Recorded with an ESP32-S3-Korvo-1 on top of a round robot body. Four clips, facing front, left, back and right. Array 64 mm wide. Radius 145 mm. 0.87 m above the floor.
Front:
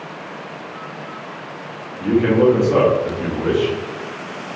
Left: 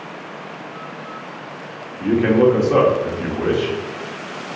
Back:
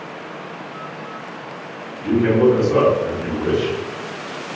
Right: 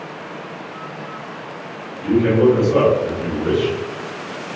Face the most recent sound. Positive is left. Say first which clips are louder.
# even, front 1 dB
turn(degrees=65)